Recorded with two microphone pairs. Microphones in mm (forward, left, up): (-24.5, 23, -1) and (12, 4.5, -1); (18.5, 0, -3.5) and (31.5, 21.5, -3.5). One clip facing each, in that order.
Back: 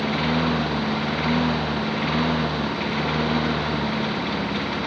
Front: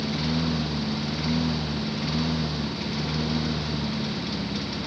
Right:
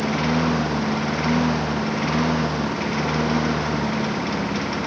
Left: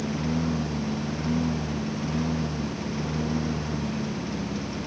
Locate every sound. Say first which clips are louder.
0.0 s a lawn mower: back 5 dB, right 7 dB; 155° right